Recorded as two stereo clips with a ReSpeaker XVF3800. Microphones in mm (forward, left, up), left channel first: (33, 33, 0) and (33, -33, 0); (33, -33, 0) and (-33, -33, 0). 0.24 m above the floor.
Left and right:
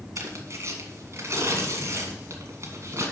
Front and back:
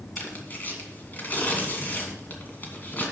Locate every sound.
0.2 s tearing paper: 55° right, 2 m